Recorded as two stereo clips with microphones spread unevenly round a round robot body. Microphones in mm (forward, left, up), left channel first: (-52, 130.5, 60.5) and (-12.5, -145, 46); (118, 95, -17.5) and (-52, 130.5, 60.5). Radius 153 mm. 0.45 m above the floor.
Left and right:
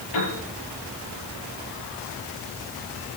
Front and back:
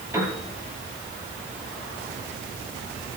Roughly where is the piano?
Left.